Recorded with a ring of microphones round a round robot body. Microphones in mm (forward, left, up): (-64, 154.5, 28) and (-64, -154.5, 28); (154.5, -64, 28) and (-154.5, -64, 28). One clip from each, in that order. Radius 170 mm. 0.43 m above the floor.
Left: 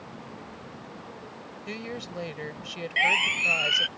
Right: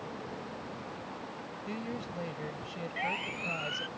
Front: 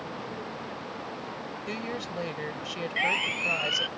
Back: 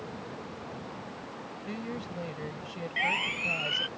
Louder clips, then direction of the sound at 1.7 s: Left 5 dB, front 4 dB; 40° left.